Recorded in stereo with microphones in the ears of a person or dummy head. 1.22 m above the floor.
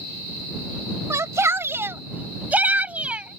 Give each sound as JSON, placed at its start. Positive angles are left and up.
{"t": 1.1, "sound": "a shout", "side_deg": -15}